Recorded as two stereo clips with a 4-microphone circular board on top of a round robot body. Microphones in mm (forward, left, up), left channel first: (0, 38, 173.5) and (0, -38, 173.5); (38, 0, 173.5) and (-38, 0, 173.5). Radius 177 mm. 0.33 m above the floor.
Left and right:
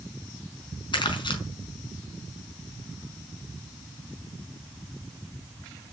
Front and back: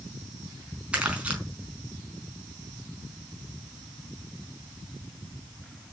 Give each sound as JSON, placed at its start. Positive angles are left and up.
{"t": 0.9, "sound": "crumpling", "azimuth_deg": 105, "distance_m": 5.0}